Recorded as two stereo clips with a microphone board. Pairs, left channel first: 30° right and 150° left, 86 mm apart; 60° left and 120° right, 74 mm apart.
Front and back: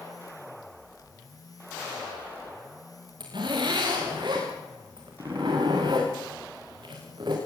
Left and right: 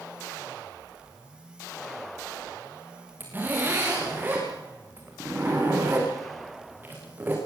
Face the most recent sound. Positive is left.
turn(degrees=175)